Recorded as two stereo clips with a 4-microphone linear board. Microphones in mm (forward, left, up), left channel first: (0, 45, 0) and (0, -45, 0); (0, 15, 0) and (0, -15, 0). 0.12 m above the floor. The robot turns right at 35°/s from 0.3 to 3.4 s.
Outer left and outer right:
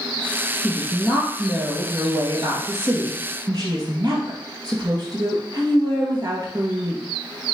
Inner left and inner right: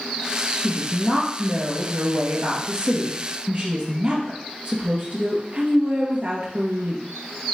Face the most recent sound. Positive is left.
turn(degrees=-70)